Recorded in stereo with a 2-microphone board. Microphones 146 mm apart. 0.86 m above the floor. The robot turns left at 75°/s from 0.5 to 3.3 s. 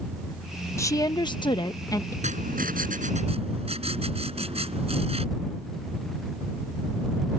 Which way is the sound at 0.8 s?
140° left.